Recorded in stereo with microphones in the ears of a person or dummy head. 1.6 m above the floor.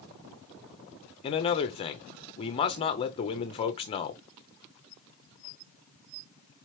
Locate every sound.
1.2 s a man speaking: 30° left (ahead or behind), 0.7 m